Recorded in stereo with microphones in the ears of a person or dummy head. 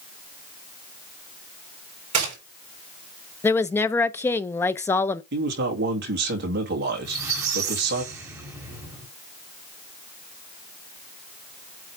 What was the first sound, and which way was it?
A gunshot, 40° right (ahead or behind).